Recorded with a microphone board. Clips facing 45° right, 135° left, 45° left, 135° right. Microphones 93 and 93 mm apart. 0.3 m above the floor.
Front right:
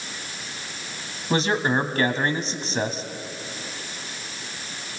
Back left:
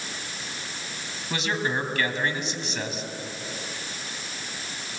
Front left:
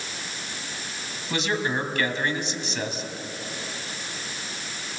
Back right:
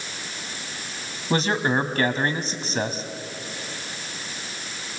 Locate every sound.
1.3 s a man speaking: 95° right, 1.9 m